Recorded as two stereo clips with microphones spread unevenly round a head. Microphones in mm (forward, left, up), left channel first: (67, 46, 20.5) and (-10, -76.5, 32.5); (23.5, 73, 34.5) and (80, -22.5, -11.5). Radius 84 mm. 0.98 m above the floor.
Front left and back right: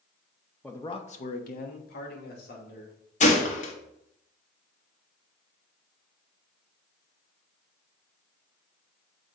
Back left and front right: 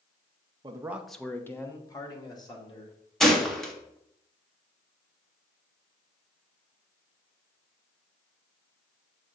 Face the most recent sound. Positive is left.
turn(degrees=25)